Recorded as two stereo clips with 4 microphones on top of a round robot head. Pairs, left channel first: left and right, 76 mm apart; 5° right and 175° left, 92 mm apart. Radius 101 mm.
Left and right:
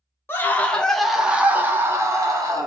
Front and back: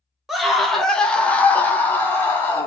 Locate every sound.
0.3 s a scream: 90° left, 0.9 m; by 2.7 s 65° right, 1.2 m